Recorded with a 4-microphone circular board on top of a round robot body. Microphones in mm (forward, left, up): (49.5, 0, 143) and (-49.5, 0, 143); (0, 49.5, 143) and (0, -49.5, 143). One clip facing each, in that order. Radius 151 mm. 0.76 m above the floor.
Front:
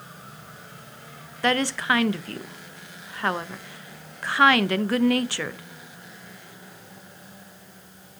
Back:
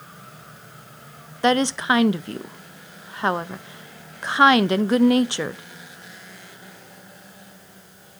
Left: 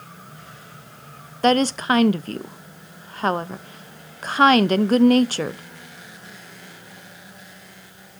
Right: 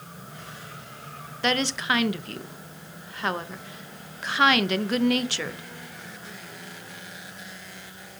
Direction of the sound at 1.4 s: 120° left.